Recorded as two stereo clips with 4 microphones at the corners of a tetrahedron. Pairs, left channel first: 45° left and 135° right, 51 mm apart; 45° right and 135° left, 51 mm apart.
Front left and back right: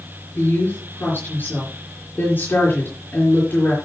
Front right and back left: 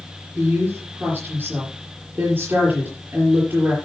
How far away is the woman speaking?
About 4 m.